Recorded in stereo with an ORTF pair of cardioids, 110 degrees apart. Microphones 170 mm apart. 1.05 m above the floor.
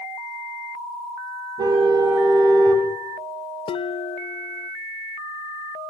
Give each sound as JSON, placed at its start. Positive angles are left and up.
{"t": 1.6, "sound": "a car horn", "azimuth_deg": -25, "distance_m": 3.5}
{"t": 3.7, "sound": "dishes clattering", "azimuth_deg": 35, "distance_m": 0.7}